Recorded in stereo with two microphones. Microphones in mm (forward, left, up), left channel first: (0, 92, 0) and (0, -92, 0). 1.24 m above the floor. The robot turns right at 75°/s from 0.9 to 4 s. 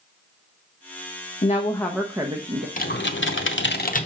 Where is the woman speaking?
140° left, 0.9 m; by 2.7 s 130° right, 0.9 m.